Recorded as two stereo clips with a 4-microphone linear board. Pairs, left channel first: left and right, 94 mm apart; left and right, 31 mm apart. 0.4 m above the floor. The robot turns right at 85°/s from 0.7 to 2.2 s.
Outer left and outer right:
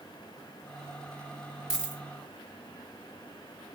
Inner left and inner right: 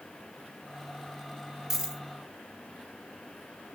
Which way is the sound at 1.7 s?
5° right (ahead or behind).